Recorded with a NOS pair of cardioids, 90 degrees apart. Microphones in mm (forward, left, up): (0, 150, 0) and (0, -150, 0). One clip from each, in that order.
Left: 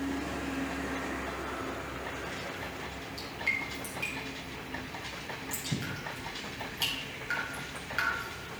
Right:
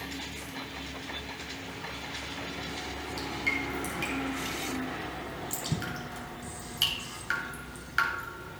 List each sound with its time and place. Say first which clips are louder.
3.2 s dripping: right 1 dB; 40° right, 5 m